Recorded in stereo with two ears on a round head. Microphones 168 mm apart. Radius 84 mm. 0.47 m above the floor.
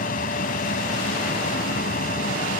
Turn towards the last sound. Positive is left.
turn(degrees=45)  # may be behind; listen again after turning